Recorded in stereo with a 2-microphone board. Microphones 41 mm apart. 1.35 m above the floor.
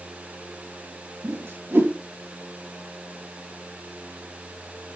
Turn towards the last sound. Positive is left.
turn(degrees=-80)